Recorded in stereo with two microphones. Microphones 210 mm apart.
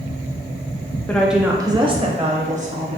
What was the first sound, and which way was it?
A woman speaking, 5° left (ahead or behind).